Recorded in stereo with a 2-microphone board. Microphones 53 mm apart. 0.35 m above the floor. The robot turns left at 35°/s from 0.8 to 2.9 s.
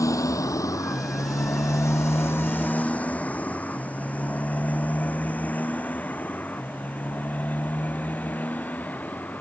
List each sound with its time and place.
0.0 s a motorcycle: 85° left; by 9.4 s 30° left (ahead or behind)